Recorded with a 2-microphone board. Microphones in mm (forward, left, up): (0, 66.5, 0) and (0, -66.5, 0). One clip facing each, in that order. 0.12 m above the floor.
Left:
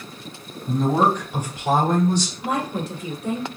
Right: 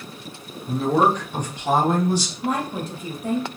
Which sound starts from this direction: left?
A woman speaking, at 0.7 s.